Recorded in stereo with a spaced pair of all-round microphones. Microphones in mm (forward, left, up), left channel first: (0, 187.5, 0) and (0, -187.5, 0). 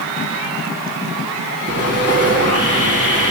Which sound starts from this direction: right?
Sawing, at 1.7 s.